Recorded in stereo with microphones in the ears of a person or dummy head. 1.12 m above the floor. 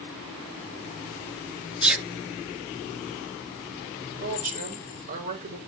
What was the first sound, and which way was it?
A sneeze, 10° right (ahead or behind).